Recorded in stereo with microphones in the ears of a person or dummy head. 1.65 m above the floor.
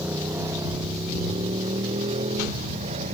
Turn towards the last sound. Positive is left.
turn(degrees=-35)  # may be behind; listen again after turning